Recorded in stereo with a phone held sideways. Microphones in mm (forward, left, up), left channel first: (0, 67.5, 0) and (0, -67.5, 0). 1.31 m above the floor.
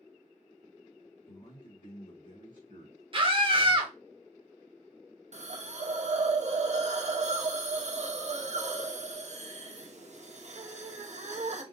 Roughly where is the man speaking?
Left.